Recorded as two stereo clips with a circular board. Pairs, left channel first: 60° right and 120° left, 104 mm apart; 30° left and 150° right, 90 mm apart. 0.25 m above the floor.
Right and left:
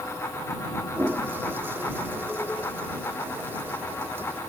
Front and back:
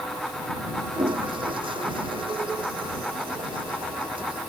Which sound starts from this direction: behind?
A toilet flushing, at 0.9 s.